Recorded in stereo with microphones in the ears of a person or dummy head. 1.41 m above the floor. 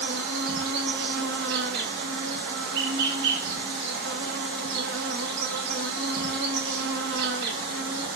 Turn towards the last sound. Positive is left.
turn(degrees=-60)  # may be behind; listen again after turning